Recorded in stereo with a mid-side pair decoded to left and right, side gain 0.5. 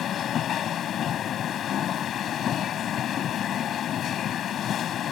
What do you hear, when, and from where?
0.0 s a machine running: 60° left